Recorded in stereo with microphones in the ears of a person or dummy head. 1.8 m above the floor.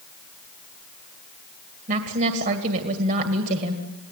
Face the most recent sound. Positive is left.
turn(degrees=-55)  # may be behind; listen again after turning